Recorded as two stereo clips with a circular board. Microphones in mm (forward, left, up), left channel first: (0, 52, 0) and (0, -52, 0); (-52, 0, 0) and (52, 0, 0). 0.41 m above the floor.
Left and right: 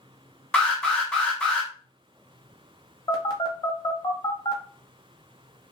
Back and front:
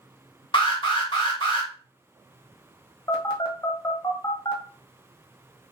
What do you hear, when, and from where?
0.5 s an alarm: 170° left, 1.0 m
3.1 s a phone buzzing: 135° left, 0.8 m